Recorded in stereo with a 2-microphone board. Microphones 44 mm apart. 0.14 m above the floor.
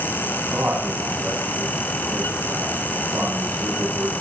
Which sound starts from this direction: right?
A man speaking, at 0.5 s.